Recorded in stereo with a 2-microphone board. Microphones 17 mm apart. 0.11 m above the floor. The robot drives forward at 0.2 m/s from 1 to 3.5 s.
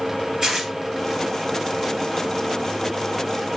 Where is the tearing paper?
35° right (ahead or behind), 2 m.